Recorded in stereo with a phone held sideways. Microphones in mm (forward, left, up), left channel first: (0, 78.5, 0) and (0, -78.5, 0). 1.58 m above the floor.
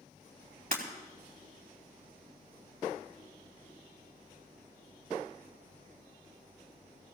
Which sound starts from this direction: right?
Breaking glass, at 0.7 s.